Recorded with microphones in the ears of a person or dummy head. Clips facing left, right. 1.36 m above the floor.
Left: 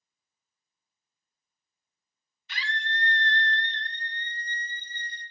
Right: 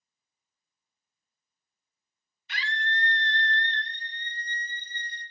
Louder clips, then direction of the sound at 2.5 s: Right 1 dB; 85° left.